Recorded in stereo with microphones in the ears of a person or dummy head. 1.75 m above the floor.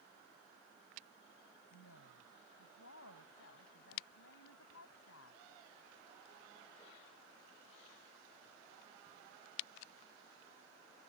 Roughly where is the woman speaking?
Left.